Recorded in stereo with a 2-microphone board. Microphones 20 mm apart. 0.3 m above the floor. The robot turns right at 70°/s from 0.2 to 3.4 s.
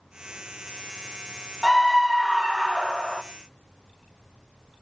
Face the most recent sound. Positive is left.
turn(degrees=-80)